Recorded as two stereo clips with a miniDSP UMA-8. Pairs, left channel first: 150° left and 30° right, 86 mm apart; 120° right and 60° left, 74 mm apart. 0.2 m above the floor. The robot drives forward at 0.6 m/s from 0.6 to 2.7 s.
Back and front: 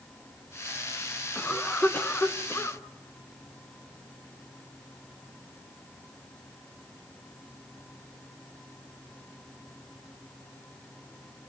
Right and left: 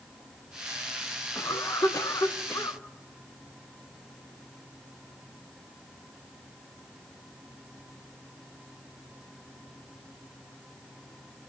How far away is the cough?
About 2 m.